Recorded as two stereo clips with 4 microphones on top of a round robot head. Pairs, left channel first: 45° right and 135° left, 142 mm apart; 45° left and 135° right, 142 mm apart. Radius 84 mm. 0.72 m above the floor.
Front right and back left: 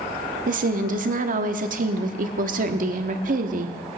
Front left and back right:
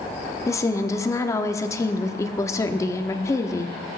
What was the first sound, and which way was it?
A woman speaking, 115° left.